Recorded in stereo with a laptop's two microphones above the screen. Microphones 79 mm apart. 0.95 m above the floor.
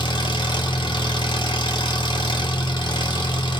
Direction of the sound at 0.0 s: 75° left (ahead or behind).